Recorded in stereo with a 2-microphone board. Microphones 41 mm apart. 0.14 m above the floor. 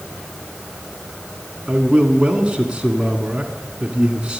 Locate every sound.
1.7 s a man speaking: 25° right (ahead or behind), 1.4 m